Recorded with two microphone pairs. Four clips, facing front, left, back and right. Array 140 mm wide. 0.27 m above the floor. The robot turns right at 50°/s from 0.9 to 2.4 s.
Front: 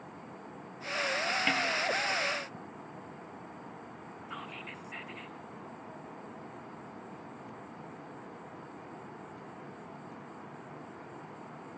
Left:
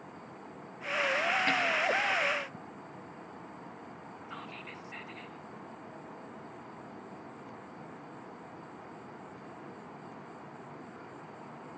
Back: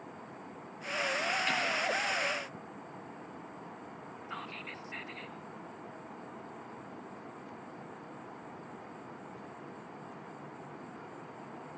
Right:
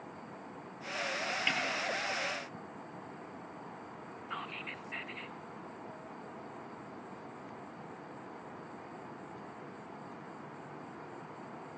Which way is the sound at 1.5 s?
25° left.